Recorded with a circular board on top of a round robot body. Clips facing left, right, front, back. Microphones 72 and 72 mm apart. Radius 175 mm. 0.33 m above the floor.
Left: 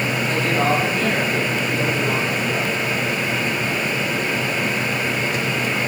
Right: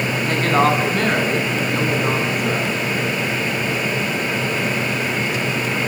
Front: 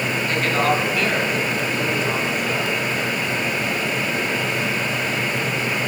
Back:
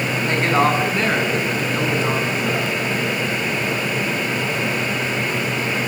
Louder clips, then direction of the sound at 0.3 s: Right 4 dB, back 3 dB; 120° right.